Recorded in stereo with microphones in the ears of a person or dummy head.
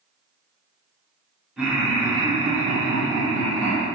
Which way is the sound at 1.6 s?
Centre (ahead or behind).